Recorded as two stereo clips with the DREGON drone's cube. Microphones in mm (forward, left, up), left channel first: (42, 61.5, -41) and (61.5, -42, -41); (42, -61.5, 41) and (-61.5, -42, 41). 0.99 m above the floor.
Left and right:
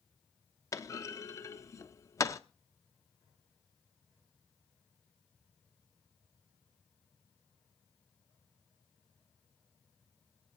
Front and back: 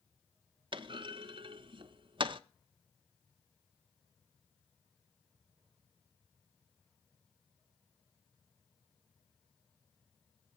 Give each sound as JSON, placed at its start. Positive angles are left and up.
{"t": 0.7, "sound": "a clunk", "azimuth_deg": 155, "distance_m": 0.6}